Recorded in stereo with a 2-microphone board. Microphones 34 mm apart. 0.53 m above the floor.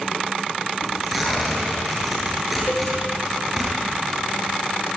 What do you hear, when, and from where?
0.8 s tearing paper: 5° right (ahead or behind), 8 m
2.7 s a cowbell: 70° left (ahead or behind), 3 m